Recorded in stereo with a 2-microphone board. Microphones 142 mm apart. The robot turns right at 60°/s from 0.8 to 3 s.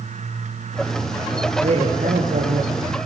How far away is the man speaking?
About 6 m.